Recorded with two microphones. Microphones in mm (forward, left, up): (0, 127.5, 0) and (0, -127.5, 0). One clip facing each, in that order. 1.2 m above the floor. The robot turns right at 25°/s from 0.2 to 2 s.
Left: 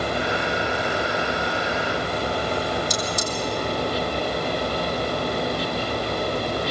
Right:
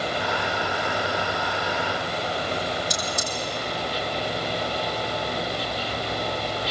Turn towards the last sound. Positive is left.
turn(degrees=-60)  # may be behind; listen again after turning